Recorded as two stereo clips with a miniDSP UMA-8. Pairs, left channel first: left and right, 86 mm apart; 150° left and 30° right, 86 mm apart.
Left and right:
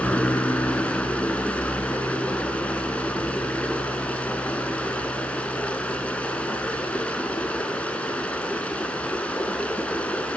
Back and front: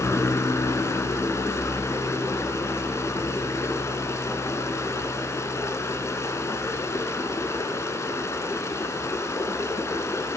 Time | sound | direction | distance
0.0 | running water | 150° left | 1.0 m